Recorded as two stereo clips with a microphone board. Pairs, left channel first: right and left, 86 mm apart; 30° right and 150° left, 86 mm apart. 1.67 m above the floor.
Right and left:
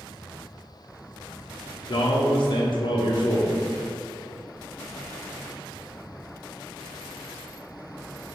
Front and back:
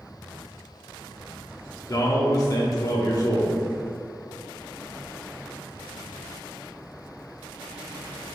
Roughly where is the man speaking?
Right.